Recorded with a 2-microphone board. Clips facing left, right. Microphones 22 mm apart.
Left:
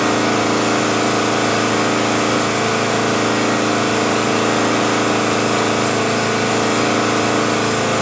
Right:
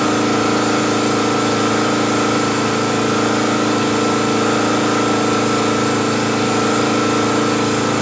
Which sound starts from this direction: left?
An engine running, at 0.0 s.